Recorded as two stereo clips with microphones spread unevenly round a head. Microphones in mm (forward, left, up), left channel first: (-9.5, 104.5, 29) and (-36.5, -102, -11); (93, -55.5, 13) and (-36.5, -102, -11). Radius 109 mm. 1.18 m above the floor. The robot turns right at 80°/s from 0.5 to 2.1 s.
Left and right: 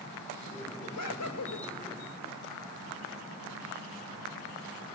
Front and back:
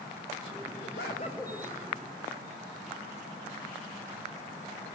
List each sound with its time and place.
0.8 s laughter: 50° left, 4.5 m; by 1.7 s 120° left, 4.5 m